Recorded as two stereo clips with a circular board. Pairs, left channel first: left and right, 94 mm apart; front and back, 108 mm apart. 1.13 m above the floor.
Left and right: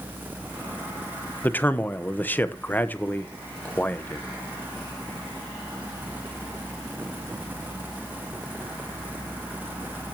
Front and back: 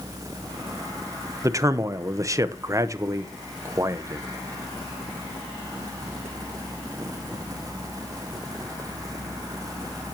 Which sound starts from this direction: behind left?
A man speaking, at 1.4 s.